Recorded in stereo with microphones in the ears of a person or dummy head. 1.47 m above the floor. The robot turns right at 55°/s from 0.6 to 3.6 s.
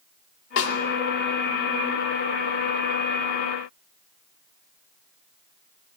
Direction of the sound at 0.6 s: 65° left (ahead or behind).